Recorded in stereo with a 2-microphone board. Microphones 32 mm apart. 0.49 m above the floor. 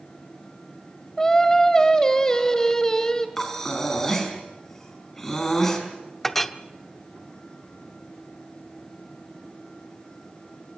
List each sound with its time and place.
1.2 s singing: 20° left (ahead or behind), 1.6 m
3.4 s breathing: 15° left (ahead or behind), 4.5 m
6.2 s a clink: 10° left (ahead or behind), 0.8 m